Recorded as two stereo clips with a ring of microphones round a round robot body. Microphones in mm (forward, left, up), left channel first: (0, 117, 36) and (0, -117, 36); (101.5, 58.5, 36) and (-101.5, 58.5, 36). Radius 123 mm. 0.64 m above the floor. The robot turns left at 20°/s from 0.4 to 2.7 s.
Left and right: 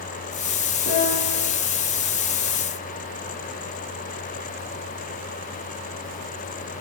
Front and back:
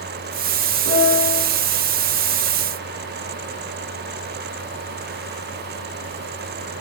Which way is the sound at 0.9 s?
35° right.